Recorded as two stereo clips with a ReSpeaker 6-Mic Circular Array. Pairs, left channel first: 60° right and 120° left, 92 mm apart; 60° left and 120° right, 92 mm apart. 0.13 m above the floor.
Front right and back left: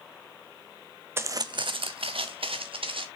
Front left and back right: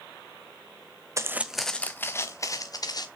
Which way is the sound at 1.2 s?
175° right.